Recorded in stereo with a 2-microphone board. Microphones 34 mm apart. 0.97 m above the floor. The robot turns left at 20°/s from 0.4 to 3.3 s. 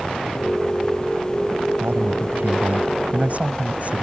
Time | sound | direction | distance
1.8 | a man speaking | 105° right | ?